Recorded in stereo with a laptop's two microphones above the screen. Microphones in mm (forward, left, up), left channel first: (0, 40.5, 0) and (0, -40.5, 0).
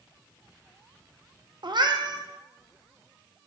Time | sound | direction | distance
1.6 | a cat meowing | 65° right (ahead or behind) | 0.6 m